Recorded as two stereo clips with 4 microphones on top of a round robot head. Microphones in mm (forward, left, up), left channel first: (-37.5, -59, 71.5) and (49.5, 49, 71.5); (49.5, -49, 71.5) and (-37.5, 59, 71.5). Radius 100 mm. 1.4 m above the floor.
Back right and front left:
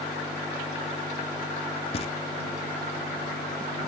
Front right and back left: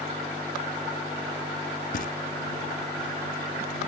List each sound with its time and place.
1.9 s knocking: 80° right